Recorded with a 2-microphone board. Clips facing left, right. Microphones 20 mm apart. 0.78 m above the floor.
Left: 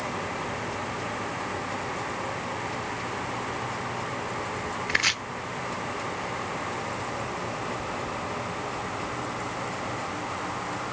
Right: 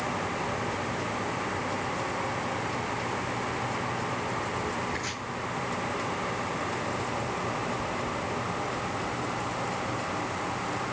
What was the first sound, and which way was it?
Chopping, 65° left (ahead or behind).